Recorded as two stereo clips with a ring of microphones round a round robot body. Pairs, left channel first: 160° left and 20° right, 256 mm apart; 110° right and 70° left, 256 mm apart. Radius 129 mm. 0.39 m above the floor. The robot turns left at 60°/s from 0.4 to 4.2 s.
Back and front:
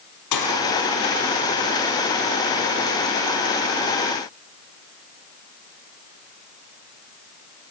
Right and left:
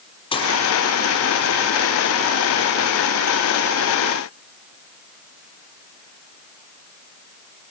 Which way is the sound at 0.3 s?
175° left.